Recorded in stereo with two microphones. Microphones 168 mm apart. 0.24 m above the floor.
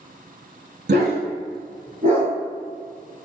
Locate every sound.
0.9 s a dog barking: 80° right, 0.6 m; by 2.3 s 40° right (ahead or behind), 1.3 m